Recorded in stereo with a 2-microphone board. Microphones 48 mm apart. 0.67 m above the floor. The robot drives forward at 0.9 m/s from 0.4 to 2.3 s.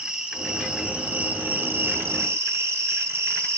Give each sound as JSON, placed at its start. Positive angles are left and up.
{"t": 0.0, "sound": "an insect", "side_deg": -20, "distance_m": 1.8}